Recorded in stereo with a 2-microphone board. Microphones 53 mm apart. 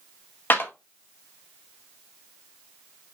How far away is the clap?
About 1.2 m.